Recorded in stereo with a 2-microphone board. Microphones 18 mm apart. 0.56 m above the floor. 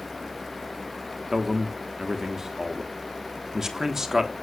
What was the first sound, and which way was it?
A man speaking, 25° right (ahead or behind).